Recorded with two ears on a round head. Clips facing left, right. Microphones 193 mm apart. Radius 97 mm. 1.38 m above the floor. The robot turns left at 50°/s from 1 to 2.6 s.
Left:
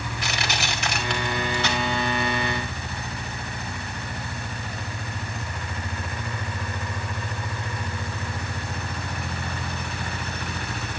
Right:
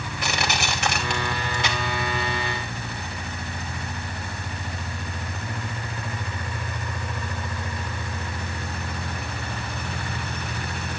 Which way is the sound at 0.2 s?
45° right (ahead or behind).